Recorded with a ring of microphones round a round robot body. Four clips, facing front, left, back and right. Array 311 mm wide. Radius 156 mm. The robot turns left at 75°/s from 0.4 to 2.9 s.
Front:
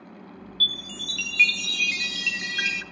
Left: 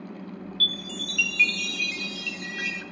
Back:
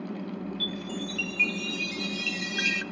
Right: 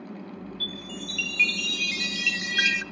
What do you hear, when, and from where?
0.6 s a chime: 65° left, 0.8 m; by 2.8 s 105° right, 0.8 m